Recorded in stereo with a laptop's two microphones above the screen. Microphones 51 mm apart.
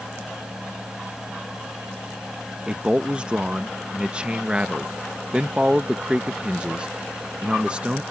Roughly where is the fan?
Centre.